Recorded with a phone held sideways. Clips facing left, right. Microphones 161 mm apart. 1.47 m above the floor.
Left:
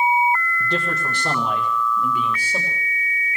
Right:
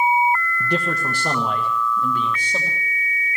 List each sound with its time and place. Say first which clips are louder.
0.6 s a man speaking: right 2 dB; 20° right (ahead or behind), 1.2 m; by 2.8 s 5° right (ahead or behind), 2.5 m